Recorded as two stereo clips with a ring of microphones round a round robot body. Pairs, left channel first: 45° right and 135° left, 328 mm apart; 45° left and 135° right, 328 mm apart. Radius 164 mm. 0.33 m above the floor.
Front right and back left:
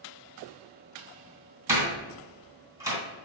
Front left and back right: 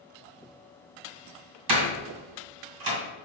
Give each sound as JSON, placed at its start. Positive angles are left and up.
{"t": 1.7, "sound": "a door slam", "azimuth_deg": -145, "distance_m": 2.5}